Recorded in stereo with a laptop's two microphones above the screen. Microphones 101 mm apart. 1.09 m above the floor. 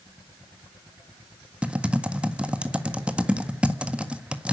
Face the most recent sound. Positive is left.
turn(degrees=-10)  # may be behind; listen again after turning